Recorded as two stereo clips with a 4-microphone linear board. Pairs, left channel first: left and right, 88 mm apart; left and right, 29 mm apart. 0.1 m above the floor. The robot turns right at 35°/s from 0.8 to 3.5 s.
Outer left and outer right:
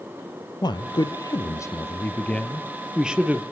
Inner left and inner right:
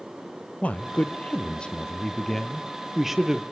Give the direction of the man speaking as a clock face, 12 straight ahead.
8 o'clock.